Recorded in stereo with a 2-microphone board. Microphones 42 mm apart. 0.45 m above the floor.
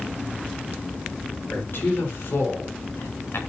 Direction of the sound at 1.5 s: 55° left (ahead or behind).